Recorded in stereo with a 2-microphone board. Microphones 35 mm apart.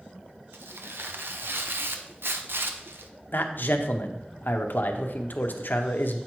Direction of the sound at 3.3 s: 60° left (ahead or behind).